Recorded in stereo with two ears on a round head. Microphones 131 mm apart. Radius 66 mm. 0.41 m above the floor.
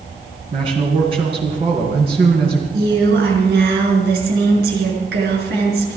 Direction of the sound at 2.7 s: 80° right.